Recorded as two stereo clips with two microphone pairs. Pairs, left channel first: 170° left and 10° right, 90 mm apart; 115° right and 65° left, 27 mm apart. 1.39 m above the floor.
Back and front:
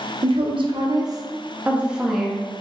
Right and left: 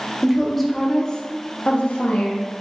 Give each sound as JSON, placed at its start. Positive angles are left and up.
{"t": 0.2, "sound": "a woman speaking", "azimuth_deg": -15, "distance_m": 0.7}